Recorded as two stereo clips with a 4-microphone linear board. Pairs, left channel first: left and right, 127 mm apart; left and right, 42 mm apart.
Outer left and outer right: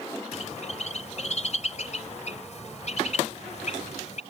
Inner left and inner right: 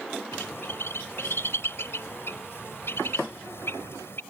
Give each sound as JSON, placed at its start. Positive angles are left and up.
{"t": 0.3, "sound": "a bird", "side_deg": 65}